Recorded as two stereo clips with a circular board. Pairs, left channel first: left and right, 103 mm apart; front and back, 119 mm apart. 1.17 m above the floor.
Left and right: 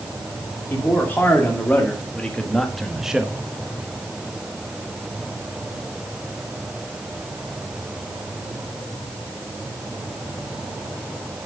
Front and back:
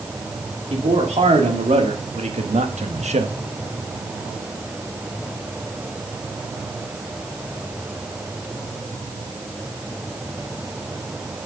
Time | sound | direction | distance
0.7 | a man speaking | 160° left | 2.5 m